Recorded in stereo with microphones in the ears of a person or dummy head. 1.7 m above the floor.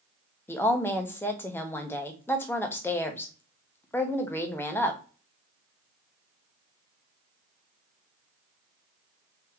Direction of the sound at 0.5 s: 15° left (ahead or behind).